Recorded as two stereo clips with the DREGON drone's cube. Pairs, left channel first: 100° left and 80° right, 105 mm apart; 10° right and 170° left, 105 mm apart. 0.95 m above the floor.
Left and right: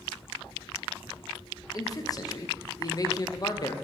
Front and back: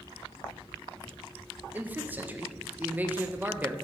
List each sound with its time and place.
1.7 s a man speaking: 105° left, 0.5 m